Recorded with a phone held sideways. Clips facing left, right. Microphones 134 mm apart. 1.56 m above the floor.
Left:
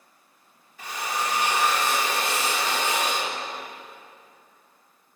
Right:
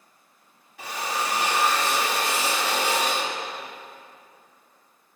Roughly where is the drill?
Right.